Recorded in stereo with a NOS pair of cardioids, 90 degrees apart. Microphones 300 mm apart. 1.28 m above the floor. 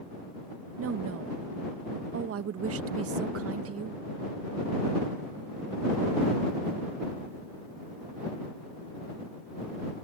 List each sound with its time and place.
0.8 s a woman speaking: 50° right